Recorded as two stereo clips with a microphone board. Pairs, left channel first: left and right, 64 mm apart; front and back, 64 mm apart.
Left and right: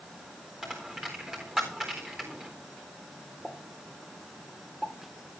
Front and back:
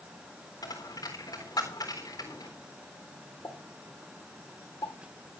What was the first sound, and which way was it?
A dropped coin, 5° right.